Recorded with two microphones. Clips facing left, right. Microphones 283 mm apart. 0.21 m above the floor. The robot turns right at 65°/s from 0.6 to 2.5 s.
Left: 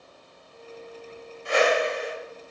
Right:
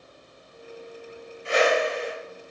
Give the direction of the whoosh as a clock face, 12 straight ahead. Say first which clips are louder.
Even; 1 o'clock.